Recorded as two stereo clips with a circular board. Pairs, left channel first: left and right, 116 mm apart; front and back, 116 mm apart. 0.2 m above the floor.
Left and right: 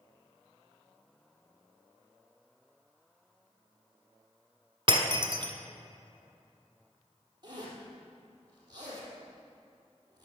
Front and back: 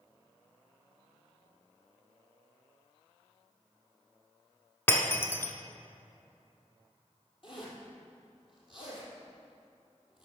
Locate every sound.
4.9 s breaking glass: 65° right, 1.3 m
7.4 s a zipper: 40° right, 3.5 m